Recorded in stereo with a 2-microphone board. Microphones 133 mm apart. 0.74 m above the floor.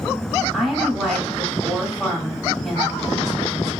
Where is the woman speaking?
Centre (ahead or behind), 1.4 m.